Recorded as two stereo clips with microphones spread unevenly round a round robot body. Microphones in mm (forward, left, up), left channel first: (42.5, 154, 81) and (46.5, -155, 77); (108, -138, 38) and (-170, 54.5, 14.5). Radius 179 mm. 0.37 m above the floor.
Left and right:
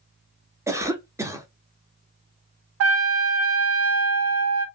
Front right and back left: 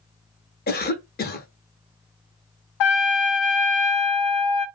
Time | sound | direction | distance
0.7 | a cough | 25° right | 0.9 m
2.8 | a trumpet | 55° right | 0.5 m